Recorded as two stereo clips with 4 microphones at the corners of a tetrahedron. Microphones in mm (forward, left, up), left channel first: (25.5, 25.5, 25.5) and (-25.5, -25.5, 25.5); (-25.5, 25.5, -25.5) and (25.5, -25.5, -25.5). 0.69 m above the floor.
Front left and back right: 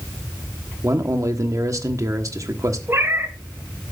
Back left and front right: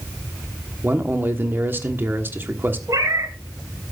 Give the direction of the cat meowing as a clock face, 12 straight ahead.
3 o'clock.